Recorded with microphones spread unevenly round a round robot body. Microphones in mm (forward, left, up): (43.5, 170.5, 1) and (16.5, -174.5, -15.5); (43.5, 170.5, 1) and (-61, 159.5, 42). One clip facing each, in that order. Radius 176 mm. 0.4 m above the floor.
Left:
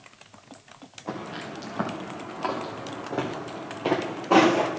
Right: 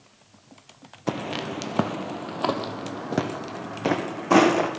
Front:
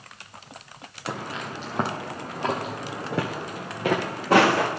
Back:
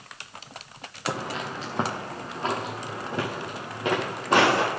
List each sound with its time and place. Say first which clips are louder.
1.1 s footsteps: right 6 dB, back 2 dB; 115° right, 0.8 m; by 4.7 s 45° right, 2.0 m